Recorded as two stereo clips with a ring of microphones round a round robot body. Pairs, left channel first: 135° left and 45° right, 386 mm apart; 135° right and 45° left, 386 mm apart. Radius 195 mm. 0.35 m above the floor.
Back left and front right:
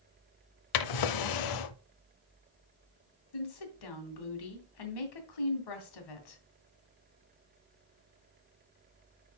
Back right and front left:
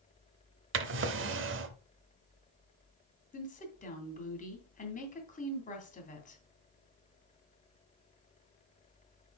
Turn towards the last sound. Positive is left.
turn(degrees=155)